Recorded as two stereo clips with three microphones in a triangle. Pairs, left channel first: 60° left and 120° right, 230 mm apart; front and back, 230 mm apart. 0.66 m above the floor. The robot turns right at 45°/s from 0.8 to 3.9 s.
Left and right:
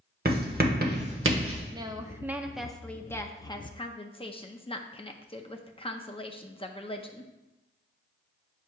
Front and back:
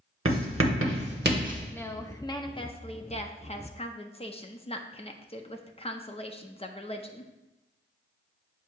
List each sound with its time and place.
0.2 s writing: 165° right, 0.8 m; by 1.6 s 125° right, 0.8 m
1.7 s a woman speaking: 70° right, 0.5 m; by 7.3 s 25° left, 0.5 m